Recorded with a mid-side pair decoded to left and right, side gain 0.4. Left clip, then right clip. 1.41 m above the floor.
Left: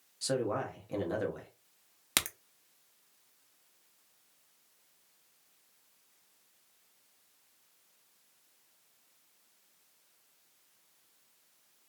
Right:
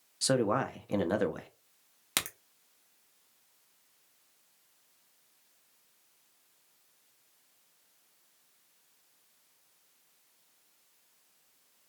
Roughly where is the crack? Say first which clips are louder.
Left 1 dB; ahead.